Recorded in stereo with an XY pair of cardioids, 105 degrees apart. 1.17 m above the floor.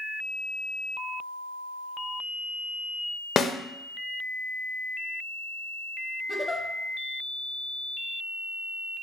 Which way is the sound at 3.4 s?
45° left.